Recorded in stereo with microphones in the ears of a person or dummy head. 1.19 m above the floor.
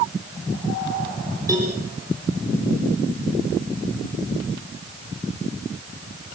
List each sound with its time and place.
1.5 s a cowbell: 20° right (ahead or behind), 7.5 m